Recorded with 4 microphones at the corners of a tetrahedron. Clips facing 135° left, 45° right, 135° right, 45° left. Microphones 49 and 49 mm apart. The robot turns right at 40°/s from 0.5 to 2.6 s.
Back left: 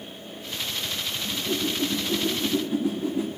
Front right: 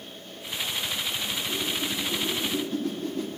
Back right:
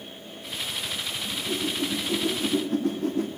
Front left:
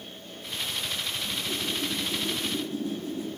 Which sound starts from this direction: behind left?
A whoosh, at 1.2 s.